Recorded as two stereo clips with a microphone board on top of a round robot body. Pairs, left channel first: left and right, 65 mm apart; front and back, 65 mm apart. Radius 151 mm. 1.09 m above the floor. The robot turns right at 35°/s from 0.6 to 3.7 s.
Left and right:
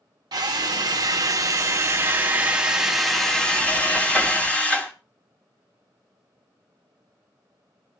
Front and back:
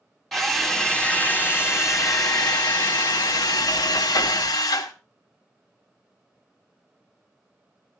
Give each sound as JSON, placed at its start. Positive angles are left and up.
{"t": 0.3, "sound": "a drill", "azimuth_deg": -85, "distance_m": 1.1}